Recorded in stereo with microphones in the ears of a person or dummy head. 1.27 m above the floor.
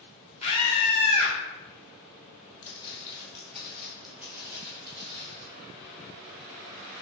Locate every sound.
0.4 s a scream: 35° left (ahead or behind), 1.3 m
2.6 s footsteps: 30° left (ahead or behind), 1.9 m; by 5.5 s 35° right (ahead or behind), 1.9 m